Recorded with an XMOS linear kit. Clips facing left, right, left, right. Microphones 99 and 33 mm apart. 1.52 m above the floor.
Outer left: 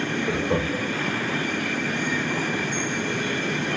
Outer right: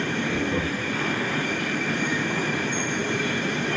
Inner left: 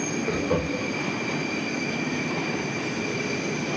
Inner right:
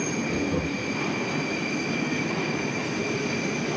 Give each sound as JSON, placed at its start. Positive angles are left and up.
{"t": 0.3, "sound": "laughter", "side_deg": 65, "distance_m": 0.8}